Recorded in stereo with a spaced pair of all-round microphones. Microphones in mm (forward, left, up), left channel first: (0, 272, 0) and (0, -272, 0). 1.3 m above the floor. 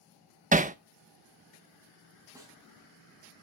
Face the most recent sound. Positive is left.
turn(degrees=-5)  # may be behind; listen again after turning